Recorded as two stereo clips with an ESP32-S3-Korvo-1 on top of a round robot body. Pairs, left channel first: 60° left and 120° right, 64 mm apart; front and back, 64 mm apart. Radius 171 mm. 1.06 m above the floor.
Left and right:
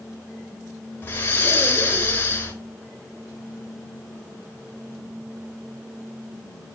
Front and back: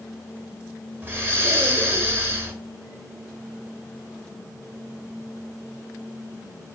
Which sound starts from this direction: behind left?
Breathing, at 1.0 s.